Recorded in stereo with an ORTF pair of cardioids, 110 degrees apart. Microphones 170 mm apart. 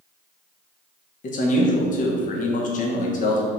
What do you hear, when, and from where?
1.2 s a man speaking: 50° left, 1.2 m